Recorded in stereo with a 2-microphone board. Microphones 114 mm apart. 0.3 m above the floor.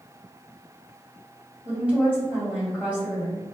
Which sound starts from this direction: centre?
A woman speaking, at 1.6 s.